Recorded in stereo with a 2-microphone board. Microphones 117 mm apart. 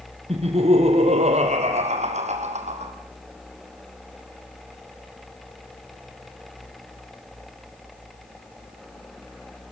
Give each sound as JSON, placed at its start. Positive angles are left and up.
{"t": 0.3, "sound": "laughter", "side_deg": -60, "distance_m": 4.5}